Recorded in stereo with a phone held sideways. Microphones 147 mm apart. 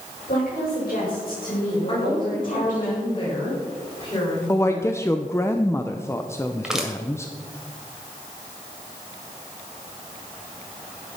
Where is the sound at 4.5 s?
20° left (ahead or behind), 0.7 m.